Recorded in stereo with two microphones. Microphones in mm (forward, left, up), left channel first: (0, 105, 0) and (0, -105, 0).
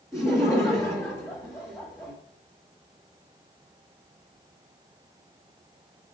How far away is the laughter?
About 1.2 m.